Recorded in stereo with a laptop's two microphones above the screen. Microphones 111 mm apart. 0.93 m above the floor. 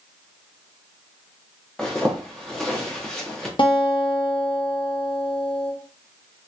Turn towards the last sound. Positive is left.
turn(degrees=50)  # may be behind; listen again after turning